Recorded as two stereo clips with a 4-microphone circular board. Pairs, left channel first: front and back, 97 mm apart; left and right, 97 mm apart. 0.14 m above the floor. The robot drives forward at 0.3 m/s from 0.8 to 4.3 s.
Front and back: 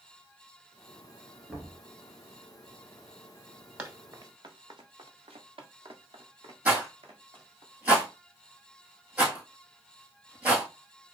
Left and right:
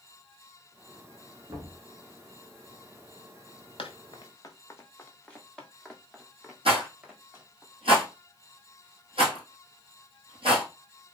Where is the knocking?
95° right, 1.6 m.